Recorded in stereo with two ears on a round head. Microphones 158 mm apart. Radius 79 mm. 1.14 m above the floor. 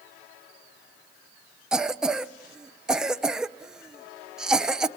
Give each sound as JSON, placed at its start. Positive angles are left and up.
{"t": 1.7, "sound": "a cough", "side_deg": -5, "distance_m": 0.7}